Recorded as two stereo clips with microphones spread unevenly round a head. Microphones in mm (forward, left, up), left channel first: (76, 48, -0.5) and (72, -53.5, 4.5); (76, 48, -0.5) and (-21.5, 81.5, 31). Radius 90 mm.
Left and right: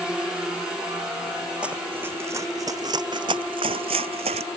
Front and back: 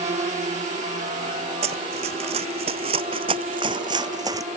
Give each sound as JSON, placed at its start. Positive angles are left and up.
{"t": 0.0, "sound": "a drone", "azimuth_deg": -175}
{"t": 1.6, "sound": "running footsteps", "azimuth_deg": -175}